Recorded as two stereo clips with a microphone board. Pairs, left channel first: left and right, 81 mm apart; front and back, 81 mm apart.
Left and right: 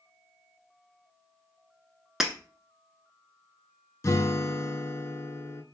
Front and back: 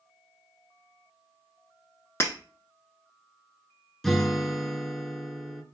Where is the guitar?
85° left, 0.5 m.